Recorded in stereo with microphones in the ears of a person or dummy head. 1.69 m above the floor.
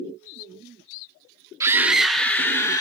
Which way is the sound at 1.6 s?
15° right (ahead or behind).